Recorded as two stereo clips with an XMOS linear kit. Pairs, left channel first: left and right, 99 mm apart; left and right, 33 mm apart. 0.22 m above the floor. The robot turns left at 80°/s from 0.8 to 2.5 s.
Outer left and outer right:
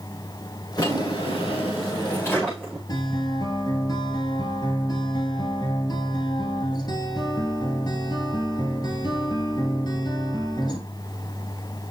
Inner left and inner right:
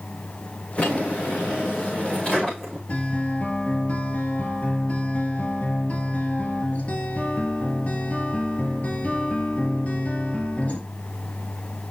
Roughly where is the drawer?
Behind left.